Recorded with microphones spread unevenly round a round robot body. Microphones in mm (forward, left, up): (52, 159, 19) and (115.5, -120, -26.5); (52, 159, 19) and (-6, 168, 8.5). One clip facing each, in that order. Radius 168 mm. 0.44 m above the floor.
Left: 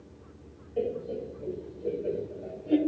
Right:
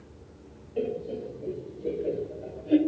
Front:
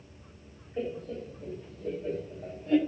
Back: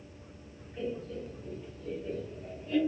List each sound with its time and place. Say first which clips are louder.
0.8 s laughter: even, front 2 dB; 10° right, 2 m; by 2.8 s 15° left, 1.4 m